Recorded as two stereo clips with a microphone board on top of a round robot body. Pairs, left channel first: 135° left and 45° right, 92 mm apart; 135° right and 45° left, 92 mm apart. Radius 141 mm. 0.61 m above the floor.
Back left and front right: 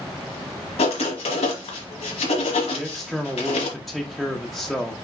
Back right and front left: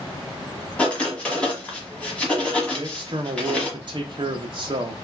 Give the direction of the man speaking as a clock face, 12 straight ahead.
11 o'clock.